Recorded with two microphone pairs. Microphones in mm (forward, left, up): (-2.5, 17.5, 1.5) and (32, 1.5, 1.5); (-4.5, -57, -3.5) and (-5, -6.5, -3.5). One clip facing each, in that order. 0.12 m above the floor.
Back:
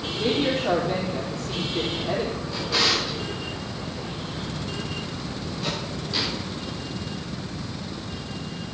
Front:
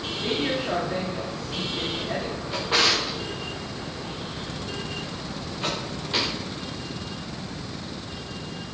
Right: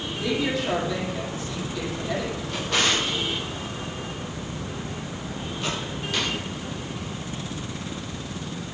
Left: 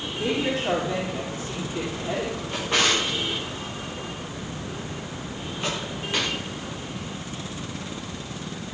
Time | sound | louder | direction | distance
0.1 | a woman speaking | back 3 dB, even | 145° left | 4.5 m
2.5 | a drawer | front 2 dB, left 1 dB | 25° left | 5.5 m